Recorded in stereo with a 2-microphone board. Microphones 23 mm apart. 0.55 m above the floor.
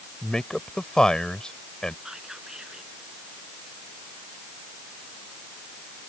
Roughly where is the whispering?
Right.